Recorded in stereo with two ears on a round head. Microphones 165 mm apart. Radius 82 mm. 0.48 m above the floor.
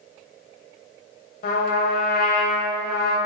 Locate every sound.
1.4 s a trumpet: 50° left (ahead or behind), 1.2 m